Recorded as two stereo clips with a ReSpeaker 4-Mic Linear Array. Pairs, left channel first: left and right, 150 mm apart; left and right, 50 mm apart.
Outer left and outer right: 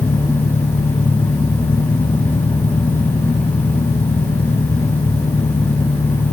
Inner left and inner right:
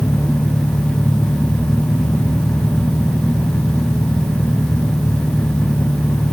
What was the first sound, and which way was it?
An engine running, 70° left (ahead or behind).